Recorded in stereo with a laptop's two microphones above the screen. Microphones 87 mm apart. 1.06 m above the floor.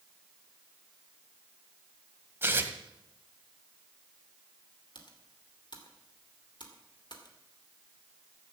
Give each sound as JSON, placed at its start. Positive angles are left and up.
{"t": 2.4, "sound": "tearing paper", "side_deg": -25, "distance_m": 1.6}
{"t": 5.0, "sound": "typing on a keyboard", "side_deg": 60, "distance_m": 2.5}